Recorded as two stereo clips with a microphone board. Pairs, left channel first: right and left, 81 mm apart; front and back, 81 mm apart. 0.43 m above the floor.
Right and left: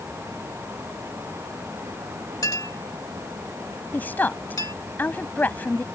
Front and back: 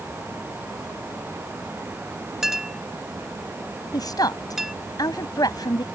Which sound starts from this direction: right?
A clink, at 2.4 s.